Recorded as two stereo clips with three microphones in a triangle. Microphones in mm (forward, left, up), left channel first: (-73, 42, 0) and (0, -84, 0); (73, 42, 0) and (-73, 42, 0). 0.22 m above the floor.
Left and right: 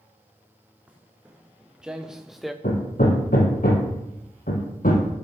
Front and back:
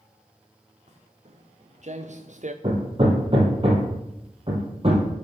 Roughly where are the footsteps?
Behind right.